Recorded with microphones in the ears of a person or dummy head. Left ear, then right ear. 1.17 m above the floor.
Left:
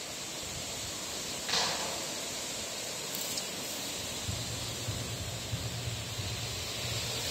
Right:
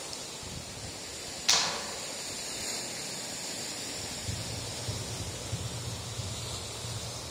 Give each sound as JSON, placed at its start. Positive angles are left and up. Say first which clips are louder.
{"t": 1.5, "sound": "a clap", "louder": "right 4 dB", "side_deg": -85, "distance_m": 2.5}
{"t": 4.0, "sound": "running footsteps", "louder": "left 1 dB", "side_deg": -50, "distance_m": 2.5}